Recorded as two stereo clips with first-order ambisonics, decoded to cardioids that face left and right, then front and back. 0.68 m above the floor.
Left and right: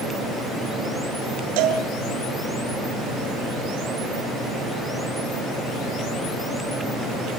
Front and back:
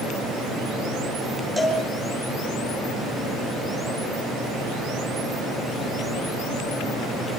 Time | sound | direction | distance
1.6 | a cowbell | 85° right | 6 m